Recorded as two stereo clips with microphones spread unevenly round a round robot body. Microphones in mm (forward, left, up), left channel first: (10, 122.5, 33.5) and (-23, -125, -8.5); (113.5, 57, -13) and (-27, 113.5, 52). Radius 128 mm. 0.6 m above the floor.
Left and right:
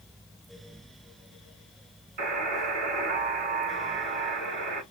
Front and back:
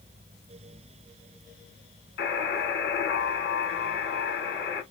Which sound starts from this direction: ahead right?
A buzzer, at 2.2 s.